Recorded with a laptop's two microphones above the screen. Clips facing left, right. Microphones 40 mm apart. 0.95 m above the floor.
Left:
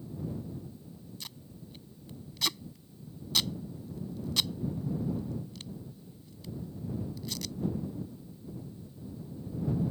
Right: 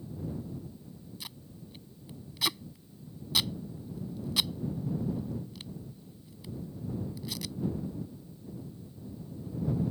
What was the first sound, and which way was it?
Tape being pulled, 10° right (ahead or behind).